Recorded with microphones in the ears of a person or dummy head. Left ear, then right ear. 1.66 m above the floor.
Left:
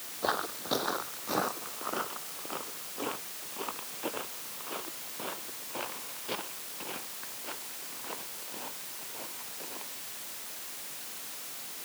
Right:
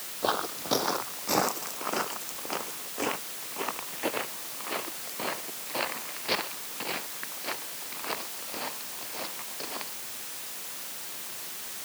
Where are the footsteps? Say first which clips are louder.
Right 3 dB; centre (ahead or behind); by 9.9 s 25° right (ahead or behind).